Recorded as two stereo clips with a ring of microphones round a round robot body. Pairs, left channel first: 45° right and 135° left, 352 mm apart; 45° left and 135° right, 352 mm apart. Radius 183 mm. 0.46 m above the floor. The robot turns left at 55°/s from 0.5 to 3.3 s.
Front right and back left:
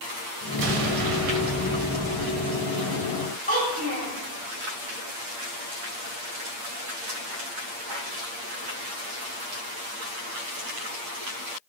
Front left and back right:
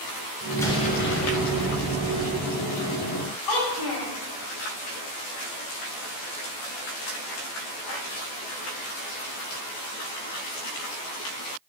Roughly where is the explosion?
Behind left.